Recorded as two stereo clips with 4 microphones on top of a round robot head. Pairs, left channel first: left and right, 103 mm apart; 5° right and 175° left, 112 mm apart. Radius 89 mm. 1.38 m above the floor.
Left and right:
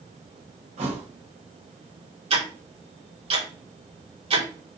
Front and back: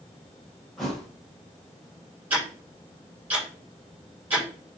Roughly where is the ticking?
Right.